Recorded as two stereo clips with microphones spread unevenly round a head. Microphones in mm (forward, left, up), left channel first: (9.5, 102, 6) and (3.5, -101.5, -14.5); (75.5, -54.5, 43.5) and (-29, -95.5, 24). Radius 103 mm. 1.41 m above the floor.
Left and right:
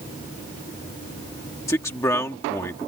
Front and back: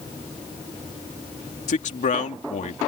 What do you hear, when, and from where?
1.7 s a man speaking: 10° left